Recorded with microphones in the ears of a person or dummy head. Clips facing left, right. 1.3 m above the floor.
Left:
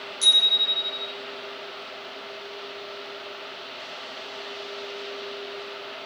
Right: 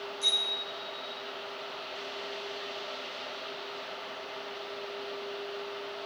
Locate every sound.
0.2 s a bicycle bell: 85° left, 9.5 m